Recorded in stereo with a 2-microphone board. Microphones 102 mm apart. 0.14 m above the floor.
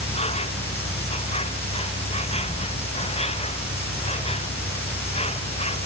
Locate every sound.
0.0 s an insect: 85° left